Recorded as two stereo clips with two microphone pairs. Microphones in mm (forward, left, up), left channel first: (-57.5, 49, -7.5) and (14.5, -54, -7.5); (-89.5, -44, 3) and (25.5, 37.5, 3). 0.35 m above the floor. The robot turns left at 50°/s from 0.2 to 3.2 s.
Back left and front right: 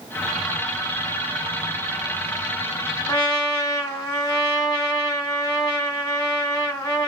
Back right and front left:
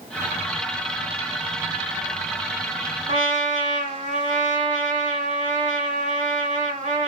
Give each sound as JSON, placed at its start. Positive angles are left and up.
{"t": 3.1, "sound": "a trumpet", "azimuth_deg": 65, "distance_m": 1.7}